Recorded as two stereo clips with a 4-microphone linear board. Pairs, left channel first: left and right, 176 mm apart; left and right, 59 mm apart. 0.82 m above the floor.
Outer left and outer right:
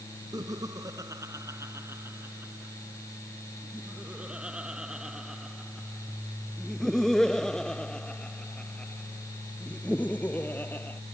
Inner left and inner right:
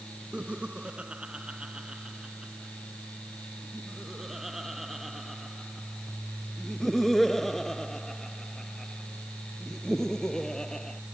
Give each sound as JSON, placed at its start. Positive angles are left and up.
{"t": 0.3, "sound": "laughter", "side_deg": -20}